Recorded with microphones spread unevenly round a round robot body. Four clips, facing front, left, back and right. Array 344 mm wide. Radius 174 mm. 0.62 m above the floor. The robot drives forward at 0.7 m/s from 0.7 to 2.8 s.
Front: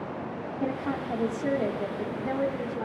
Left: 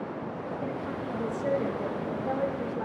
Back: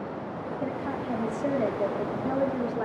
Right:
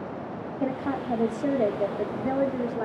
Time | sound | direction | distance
0.6 | a woman speaking | 70° right | 1.8 m